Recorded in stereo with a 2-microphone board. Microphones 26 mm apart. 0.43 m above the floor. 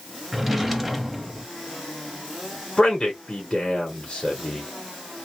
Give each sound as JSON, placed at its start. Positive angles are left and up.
{"t": 0.3, "sound": "a drawer", "side_deg": -5, "distance_m": 0.5}
{"t": 2.8, "sound": "a man speaking", "side_deg": 30, "distance_m": 1.0}